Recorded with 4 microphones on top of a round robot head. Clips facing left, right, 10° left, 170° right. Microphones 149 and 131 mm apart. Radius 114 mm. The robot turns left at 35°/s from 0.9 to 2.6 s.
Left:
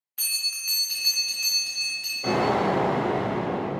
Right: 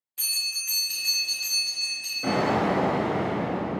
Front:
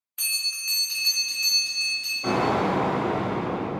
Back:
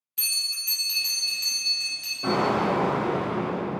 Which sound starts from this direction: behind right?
An explosion, at 2.2 s.